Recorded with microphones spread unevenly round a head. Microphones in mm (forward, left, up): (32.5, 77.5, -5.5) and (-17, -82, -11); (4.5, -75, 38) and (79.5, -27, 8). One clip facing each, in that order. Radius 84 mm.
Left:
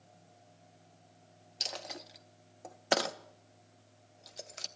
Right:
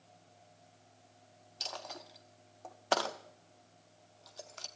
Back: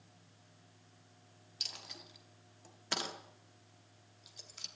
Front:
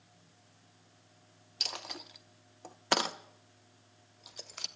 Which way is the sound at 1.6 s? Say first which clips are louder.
Left 1 dB, front 10 dB; 30° left.